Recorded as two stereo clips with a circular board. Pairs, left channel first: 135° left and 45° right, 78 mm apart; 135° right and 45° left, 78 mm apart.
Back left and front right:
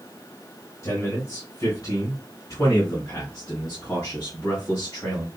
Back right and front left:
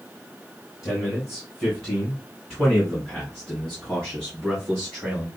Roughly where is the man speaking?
Behind left.